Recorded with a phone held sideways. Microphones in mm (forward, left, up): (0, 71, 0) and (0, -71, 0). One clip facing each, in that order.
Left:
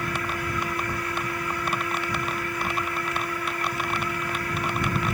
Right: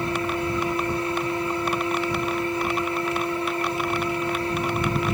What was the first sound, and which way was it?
A fan, 30° right (ahead or behind).